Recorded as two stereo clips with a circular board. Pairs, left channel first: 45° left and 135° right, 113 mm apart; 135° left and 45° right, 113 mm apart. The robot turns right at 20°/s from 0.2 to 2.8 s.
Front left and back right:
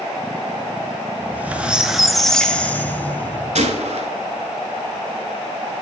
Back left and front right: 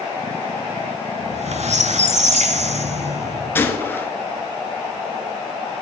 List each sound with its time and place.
1.2 s a squeak: 65° right, 0.6 m; by 3.6 s 30° right, 0.6 m
3.5 s a gunshot: 155° right, 0.7 m